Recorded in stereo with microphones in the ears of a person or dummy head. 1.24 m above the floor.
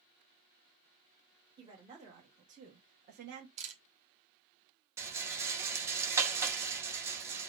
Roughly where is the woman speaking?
Right.